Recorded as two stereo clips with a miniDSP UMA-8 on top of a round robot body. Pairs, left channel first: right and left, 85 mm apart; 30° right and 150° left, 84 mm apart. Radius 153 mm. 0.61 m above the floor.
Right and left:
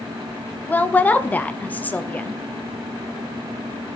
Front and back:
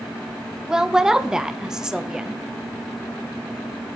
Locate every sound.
0.7 s a woman speaking: 135° right, 0.8 m